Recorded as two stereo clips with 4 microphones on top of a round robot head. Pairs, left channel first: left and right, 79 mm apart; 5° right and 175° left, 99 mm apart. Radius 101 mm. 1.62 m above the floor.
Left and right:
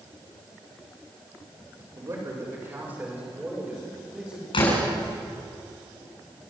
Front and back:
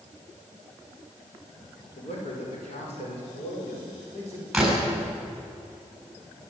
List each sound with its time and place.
2.0 s a man speaking: 30° right, 6 m; by 4.4 s 5° right, 8 m
4.5 s a door slam: 90° left, 8.5 m